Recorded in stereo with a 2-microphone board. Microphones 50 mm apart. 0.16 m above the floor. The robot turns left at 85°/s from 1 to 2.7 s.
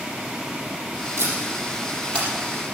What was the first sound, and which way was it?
Tape being pulled, 60° right (ahead or behind).